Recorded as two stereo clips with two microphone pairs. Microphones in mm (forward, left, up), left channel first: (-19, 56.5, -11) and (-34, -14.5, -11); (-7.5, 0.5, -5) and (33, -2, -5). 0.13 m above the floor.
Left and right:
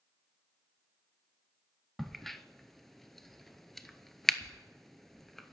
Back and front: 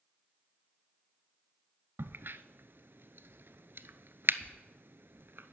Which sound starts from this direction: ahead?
A crack, at 2.0 s.